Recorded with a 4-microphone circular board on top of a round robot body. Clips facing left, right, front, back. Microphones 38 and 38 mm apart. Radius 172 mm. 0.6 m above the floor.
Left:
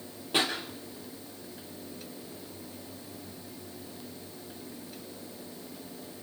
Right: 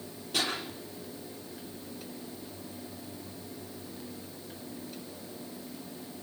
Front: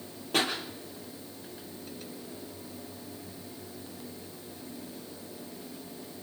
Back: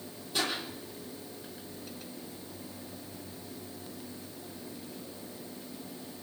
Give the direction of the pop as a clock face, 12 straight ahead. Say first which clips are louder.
Left 3 dB, front 4 dB; 11 o'clock.